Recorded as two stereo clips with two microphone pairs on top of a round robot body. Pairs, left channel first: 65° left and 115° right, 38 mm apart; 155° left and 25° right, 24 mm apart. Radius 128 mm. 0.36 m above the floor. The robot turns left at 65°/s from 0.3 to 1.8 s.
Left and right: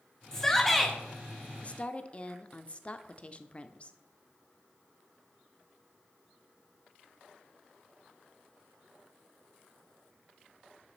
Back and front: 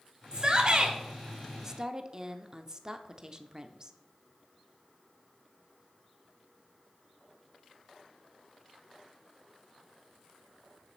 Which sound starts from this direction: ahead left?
A woman speaking, at 1.6 s.